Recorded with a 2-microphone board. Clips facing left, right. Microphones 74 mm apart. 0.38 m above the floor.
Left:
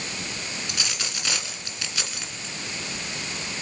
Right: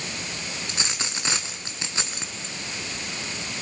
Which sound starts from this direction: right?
A dropped coin, at 0.7 s.